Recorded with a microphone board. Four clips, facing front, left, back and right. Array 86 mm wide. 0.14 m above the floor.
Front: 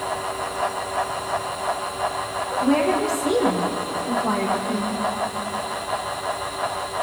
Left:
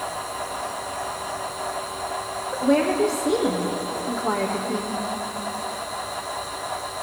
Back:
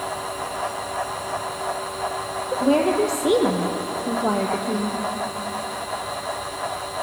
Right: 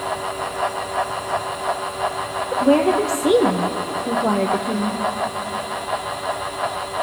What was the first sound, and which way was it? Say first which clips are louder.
A woman speaking: right 4 dB, back 1 dB; 120° right.